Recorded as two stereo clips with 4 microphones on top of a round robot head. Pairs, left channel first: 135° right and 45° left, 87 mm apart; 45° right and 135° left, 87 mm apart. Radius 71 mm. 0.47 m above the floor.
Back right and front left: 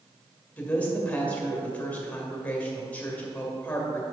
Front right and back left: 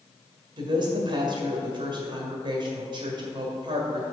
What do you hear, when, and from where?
0.6 s a woman speaking: 150° left, 1.8 m